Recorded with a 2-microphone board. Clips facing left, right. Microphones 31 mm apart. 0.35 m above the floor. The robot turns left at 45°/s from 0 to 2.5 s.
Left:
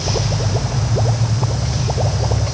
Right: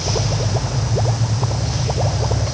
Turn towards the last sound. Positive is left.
No sound to turn to.